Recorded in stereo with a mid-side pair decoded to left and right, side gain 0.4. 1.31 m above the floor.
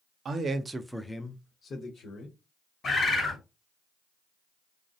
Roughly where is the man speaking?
Ahead right.